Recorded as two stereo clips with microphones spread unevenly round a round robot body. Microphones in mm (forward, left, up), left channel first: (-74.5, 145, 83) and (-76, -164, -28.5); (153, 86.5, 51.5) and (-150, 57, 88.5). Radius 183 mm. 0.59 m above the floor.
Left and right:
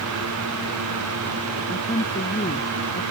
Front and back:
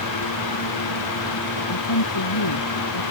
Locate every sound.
1.7 s a woman speaking: 20° left